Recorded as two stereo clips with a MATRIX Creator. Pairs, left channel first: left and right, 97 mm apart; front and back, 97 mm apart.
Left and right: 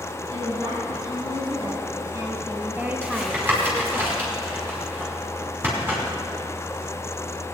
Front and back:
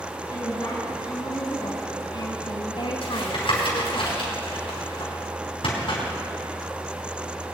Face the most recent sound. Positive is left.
turn(degrees=-20)